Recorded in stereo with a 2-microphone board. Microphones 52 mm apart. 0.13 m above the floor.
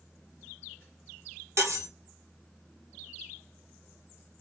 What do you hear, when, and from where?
1.6 s cutlery clinking: 65° right (ahead or behind), 1.6 m